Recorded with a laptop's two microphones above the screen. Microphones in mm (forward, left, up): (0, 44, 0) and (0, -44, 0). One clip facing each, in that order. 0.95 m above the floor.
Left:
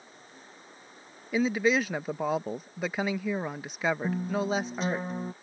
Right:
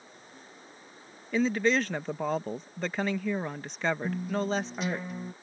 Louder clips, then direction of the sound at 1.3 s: Even; 5° left (ahead or behind).